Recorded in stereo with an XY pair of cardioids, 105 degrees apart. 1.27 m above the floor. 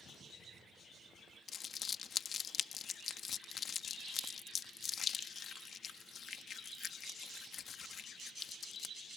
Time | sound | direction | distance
1.5 | crumpling | 50° left | ?